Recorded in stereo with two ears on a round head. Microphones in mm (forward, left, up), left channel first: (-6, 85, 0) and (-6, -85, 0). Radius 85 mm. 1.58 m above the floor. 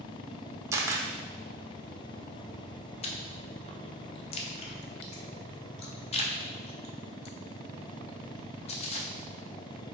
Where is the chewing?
35° left (ahead or behind), 0.6 m.